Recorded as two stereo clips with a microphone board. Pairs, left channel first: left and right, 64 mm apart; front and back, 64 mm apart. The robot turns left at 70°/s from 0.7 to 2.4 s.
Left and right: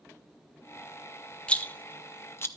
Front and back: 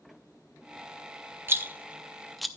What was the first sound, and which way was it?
A rattle, 150° left.